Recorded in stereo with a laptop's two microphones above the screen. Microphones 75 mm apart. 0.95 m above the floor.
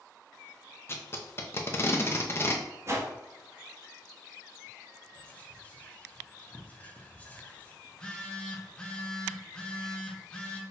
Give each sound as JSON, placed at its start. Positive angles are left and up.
{"t": 0.9, "sound": "tape being pulled", "side_deg": 30, "distance_m": 0.6}
{"t": 2.9, "sound": "a whoosh", "side_deg": -35, "distance_m": 0.6}
{"t": 5.2, "sound": "whispering", "side_deg": 20, "distance_m": 0.8}
{"t": 7.8, "sound": "a phone buzzing", "side_deg": 10, "distance_m": 0.7}